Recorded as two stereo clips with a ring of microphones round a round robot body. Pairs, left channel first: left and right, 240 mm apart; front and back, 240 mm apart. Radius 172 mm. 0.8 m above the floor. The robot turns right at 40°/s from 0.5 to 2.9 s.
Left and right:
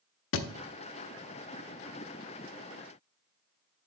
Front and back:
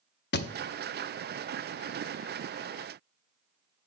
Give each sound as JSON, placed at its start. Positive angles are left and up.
{"t": 0.3, "sound": "a thud", "azimuth_deg": 50, "distance_m": 0.7}